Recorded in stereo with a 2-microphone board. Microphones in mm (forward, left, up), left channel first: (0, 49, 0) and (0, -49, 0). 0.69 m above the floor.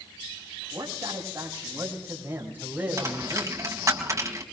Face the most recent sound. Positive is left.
turn(degrees=-30)  # may be behind; listen again after turning